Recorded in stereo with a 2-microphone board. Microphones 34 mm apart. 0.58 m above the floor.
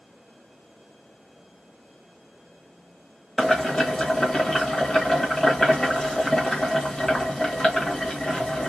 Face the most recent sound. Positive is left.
turn(degrees=20)  # may be behind; listen again after turning